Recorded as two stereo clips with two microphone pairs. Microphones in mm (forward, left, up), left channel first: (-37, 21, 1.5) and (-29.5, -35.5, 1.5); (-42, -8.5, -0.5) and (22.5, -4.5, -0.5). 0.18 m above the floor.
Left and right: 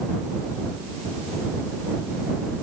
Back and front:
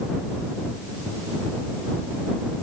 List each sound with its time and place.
Only background noise.